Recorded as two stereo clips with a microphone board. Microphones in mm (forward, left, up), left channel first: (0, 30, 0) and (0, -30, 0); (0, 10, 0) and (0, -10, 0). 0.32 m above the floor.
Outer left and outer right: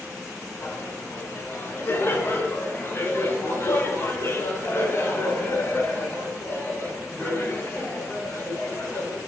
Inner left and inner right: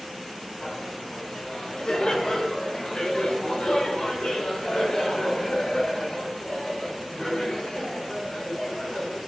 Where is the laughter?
40° left (ahead or behind), 3.5 m; by 9.2 s 45° left (ahead or behind), 9 m.